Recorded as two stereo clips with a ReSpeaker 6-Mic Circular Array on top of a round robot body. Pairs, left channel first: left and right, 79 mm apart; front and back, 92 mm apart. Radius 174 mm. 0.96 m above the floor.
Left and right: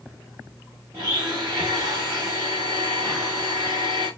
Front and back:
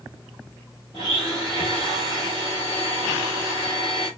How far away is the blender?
About 0.6 m.